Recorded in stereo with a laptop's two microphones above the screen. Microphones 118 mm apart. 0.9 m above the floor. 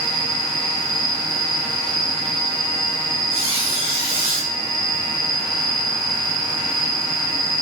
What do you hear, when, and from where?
0.0 s an insect: 35° right (ahead or behind), 1.4 m
3.3 s a squeak: 55° right (ahead or behind), 4 m